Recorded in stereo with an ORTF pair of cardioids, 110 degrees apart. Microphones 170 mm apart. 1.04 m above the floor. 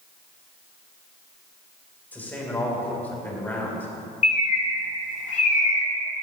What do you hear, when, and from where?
2.1 s a man speaking: 10° left, 3.5 m
4.2 s a bird: 45° left, 1.4 m